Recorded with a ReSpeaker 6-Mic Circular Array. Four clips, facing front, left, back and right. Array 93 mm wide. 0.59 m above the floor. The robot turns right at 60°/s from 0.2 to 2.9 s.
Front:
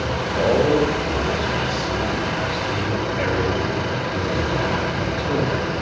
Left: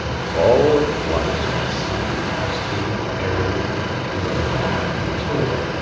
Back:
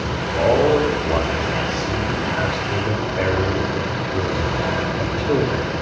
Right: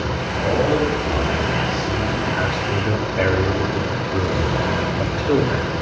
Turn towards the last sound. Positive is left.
turn(degrees=-115)